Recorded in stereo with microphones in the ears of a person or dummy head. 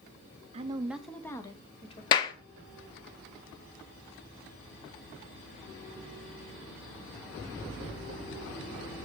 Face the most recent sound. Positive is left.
turn(degrees=25)  # may be behind; listen again after turning